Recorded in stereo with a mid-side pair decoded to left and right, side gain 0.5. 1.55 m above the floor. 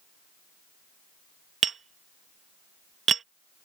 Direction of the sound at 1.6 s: 45° right.